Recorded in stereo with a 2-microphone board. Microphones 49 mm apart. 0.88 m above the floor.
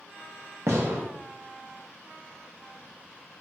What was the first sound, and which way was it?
A gunshot, 70° right (ahead or behind).